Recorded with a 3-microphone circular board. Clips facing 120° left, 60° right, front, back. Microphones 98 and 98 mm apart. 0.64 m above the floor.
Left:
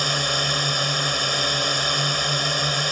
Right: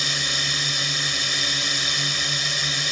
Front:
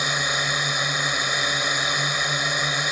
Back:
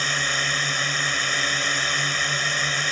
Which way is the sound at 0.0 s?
75° left.